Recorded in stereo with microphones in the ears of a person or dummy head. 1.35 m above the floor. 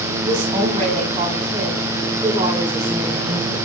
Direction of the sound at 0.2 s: 25° right (ahead or behind).